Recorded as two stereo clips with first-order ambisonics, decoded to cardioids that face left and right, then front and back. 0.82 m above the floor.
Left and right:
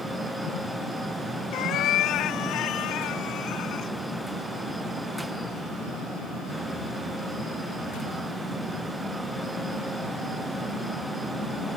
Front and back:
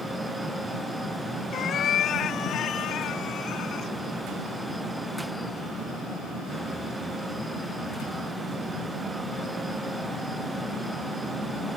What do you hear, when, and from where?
1.5 s a cat meowing: 55° left; by 3.9 s 50° left